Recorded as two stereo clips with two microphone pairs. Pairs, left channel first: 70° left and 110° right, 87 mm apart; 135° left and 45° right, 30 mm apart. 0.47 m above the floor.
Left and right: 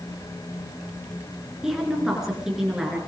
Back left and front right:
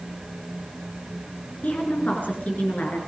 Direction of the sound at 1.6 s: 170° left.